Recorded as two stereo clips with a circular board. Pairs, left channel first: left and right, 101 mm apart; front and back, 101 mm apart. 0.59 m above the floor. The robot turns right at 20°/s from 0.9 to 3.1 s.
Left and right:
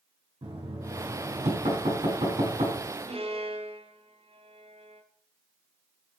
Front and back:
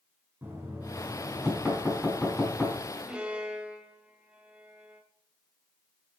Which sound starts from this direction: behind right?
Knocking, at 0.4 s.